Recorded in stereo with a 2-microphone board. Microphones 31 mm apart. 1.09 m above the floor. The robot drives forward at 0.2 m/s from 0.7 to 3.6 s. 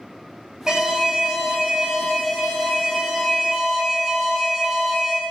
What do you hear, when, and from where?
0.7 s an alarm: 20° right (ahead or behind), 1.1 m; by 5.2 s 15° right (ahead or behind), 1.5 m